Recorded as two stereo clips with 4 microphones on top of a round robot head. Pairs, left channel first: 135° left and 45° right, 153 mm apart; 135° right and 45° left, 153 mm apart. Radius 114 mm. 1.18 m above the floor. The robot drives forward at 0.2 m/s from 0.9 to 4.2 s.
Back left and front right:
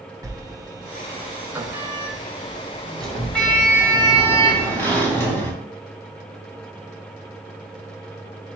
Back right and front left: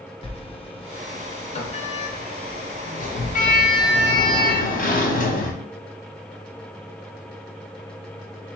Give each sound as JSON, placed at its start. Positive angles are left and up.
{"t": 0.2, "sound": "a sliding door", "azimuth_deg": -105, "distance_m": 0.7}